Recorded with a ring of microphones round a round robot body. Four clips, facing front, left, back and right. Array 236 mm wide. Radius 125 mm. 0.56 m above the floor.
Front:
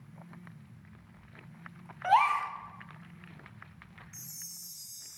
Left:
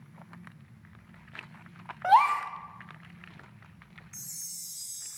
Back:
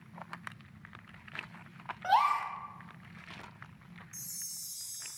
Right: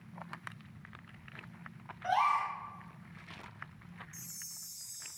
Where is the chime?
115° left, 0.6 m.